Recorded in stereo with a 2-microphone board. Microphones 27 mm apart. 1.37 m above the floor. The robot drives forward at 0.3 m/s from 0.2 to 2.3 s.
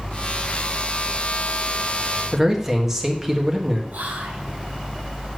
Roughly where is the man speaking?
Centre.